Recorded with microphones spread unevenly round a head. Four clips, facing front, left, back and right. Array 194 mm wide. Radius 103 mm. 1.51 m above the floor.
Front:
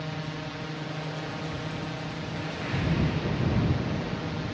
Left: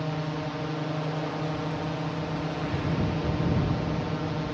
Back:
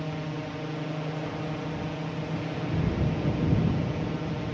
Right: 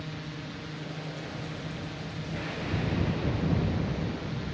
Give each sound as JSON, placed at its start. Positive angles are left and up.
{"t": 0.0, "sound": "a drone", "azimuth_deg": 130}